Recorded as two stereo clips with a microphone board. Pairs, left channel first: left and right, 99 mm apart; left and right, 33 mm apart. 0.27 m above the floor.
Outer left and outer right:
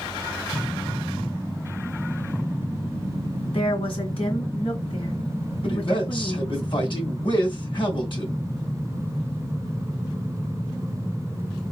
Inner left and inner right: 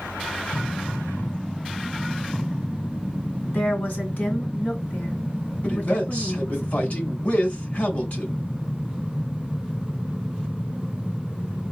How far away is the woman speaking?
About 3 m.